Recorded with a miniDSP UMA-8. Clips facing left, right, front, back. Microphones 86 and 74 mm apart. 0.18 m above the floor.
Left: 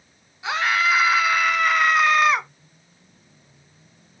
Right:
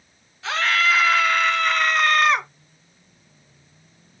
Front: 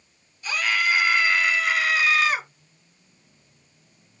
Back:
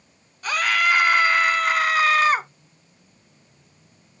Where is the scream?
165° left, 2.5 m; by 2.5 s 175° left, 1.7 m.